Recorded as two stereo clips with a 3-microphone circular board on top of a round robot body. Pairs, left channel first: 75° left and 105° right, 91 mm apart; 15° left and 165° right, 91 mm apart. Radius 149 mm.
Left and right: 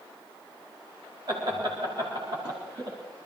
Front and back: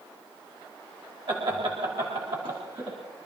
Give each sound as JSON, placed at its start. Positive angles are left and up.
{"t": 1.3, "sound": "laughter", "azimuth_deg": -140, "distance_m": 3.0}